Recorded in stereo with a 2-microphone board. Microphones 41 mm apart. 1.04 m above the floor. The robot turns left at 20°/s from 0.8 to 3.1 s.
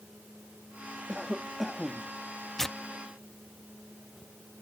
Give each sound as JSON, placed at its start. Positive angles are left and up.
{"t": 1.1, "sound": "a cough", "side_deg": -15}
{"t": 2.6, "sound": "tearing paper", "side_deg": 10}